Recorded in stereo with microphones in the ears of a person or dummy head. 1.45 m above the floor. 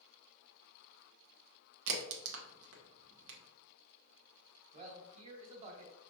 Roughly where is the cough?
I don't hear a cough.